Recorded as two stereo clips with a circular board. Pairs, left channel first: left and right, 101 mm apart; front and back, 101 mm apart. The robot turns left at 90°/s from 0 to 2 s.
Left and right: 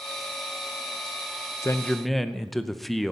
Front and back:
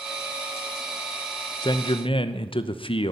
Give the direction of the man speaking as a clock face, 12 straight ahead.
11 o'clock.